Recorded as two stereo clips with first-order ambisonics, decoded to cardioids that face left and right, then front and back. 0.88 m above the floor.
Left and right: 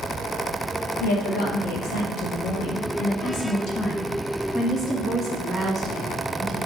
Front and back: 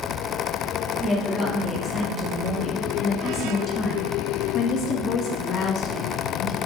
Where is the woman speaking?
80° left, 2.5 m; by 6.6 s 25° right, 1.4 m.